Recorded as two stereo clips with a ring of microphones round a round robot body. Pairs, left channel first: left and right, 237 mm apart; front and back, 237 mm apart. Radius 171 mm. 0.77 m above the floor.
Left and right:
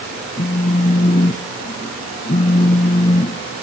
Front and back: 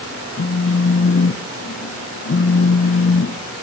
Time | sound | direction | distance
0.4 | a phone buzzing | 30° left | 1.0 m